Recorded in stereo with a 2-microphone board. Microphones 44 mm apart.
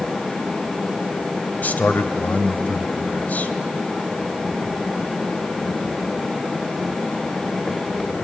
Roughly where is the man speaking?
Left.